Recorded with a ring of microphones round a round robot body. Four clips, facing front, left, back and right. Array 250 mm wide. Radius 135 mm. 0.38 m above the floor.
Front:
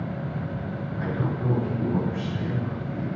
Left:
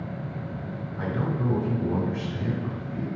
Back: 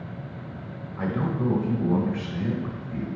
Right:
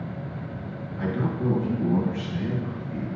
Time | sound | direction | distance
1.0 | a man speaking | 160° left | 1.9 m